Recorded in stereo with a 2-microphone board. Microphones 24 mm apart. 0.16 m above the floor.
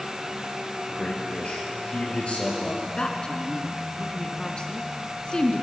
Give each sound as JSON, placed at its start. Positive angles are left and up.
{"t": 0.9, "sound": "a man speaking", "side_deg": 50, "distance_m": 4.0}
{"t": 3.0, "sound": "a woman speaking", "side_deg": 35, "distance_m": 1.7}